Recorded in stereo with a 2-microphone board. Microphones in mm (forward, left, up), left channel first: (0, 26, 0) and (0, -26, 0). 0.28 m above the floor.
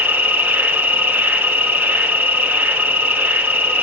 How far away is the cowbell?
I don't hear a cowbell.